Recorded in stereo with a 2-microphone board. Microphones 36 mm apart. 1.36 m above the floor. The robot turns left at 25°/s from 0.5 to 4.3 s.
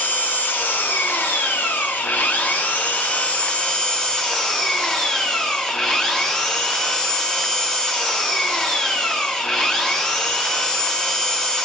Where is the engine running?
115° left, 0.7 m; by 11.7 s 20° left, 0.7 m.